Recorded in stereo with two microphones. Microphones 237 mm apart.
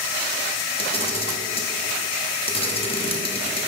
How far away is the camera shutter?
About 0.9 m.